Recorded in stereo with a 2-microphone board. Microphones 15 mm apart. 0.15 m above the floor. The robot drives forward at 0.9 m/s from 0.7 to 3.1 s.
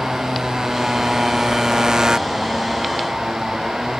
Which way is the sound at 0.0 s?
45° right (ahead or behind).